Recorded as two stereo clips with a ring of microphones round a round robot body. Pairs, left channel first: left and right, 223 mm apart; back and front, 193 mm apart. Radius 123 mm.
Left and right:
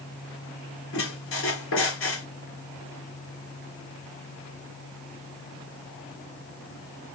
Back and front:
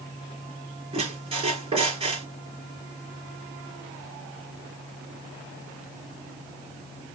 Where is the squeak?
60° left, 4 m.